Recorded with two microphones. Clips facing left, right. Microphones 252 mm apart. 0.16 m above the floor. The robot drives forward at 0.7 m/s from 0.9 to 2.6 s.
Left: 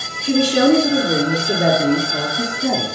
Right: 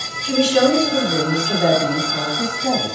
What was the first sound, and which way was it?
A woman speaking, 45° left (ahead or behind).